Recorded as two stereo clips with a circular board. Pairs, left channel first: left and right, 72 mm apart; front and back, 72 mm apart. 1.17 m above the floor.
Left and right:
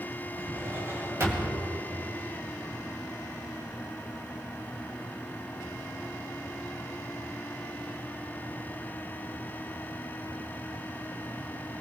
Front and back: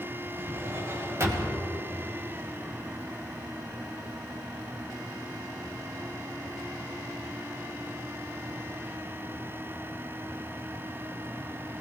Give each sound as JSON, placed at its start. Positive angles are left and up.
{"t": 0.4, "sound": "a drawer", "azimuth_deg": -135, "distance_m": 2.5}